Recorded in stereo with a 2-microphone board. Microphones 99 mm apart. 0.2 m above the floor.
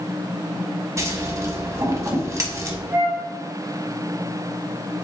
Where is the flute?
25° right (ahead or behind), 0.8 m.